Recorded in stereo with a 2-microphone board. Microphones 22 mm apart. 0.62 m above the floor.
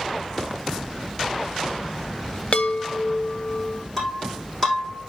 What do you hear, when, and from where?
2.5 s a chime: 50° left (ahead or behind), 0.6 m
4.0 s breaking glass: 10° left (ahead or behind), 8 m